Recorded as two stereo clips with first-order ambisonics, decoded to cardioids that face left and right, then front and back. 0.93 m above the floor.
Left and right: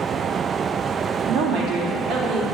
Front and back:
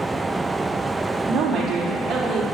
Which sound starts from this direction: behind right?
A woman speaking, at 1.3 s.